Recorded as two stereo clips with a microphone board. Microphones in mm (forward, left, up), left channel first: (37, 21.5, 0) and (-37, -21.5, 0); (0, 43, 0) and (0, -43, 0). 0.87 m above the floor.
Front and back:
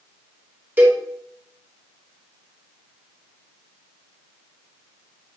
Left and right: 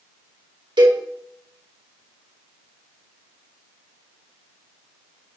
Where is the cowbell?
85° right, 2.5 m.